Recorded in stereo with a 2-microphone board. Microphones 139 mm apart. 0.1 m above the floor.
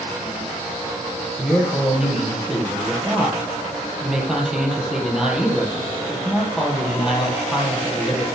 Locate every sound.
1.4 s a man speaking: 5° right (ahead or behind), 2.5 m